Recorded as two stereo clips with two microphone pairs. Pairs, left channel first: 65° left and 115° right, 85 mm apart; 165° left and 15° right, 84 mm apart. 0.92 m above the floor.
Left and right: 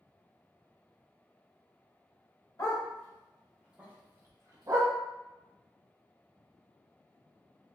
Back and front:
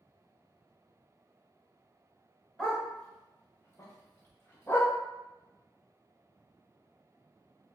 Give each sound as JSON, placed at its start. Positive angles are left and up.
{"t": 2.6, "sound": "a dog barking", "azimuth_deg": 85, "distance_m": 1.0}